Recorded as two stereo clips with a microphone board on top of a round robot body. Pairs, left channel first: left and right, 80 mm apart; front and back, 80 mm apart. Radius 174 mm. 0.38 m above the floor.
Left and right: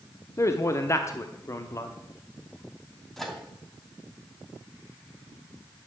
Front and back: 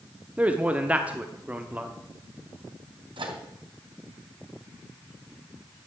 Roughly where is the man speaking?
Behind left.